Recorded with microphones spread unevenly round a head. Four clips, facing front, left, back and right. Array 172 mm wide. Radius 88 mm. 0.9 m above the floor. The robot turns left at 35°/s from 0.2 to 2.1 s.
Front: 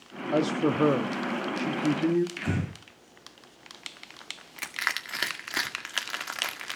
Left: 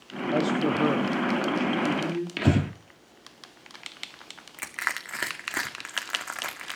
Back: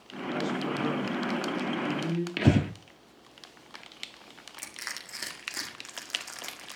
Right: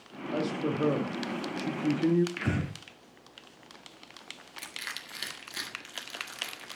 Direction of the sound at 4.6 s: 55° left.